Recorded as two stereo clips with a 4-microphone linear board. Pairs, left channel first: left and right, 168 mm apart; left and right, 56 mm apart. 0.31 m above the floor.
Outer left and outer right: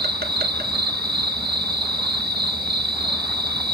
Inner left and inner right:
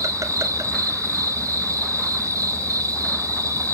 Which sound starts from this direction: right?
An insect, at 0.0 s.